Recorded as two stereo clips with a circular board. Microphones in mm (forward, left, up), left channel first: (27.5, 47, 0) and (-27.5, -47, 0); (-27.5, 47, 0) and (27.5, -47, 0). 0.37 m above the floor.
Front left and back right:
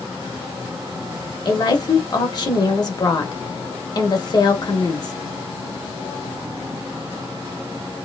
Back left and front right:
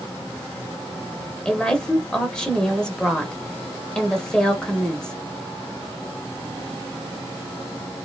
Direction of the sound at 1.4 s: 40° left.